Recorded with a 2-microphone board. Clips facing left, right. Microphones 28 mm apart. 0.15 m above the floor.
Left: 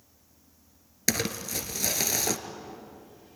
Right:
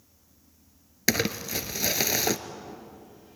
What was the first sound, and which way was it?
Crumpling, 20° right (ahead or behind).